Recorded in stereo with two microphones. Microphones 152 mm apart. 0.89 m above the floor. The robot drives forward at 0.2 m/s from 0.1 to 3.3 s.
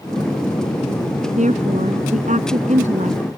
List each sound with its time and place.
1.4 s a woman speaking: 55° right (ahead or behind)